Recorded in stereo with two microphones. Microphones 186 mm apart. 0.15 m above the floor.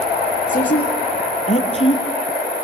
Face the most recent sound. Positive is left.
turn(degrees=30)  # may be behind; listen again after turning